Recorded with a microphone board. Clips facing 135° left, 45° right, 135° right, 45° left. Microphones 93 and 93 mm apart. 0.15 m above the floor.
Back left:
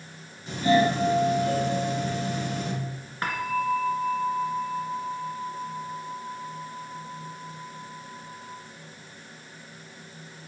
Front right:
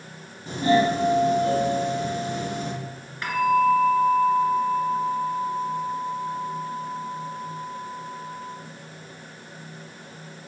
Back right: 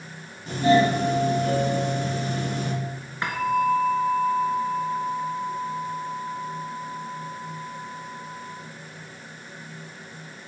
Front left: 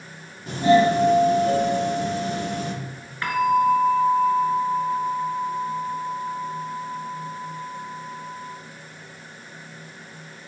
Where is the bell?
165° left, 1.4 m.